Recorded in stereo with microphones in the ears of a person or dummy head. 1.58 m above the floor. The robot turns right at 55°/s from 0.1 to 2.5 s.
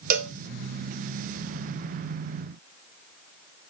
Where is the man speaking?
No man speaking in this recording.